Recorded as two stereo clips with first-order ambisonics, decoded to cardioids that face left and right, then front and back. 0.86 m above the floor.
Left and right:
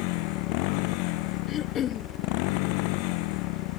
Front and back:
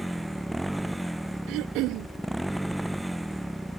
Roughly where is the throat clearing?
Behind left.